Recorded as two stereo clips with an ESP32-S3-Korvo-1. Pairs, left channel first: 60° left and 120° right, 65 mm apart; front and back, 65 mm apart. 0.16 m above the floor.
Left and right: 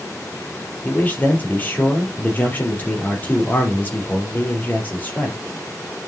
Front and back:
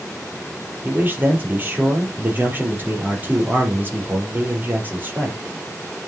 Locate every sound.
0.8 s a man speaking: 125° left, 4.5 m